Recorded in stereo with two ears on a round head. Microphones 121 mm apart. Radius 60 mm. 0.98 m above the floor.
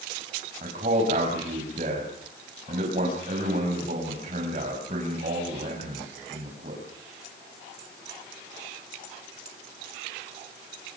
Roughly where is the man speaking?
Right.